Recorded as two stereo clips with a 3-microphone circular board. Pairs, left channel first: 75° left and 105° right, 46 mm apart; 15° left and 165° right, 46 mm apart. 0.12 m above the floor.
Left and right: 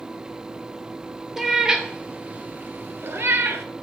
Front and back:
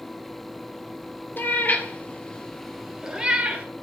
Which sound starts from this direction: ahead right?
A cat meowing, at 1.4 s.